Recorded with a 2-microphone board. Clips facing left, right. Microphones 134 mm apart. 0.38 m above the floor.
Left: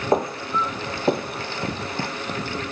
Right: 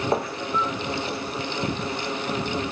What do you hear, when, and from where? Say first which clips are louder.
0.1 s footsteps: left 7 dB; 20° left (ahead or behind), 1.0 m; by 2.1 s 55° left (ahead or behind), 0.9 m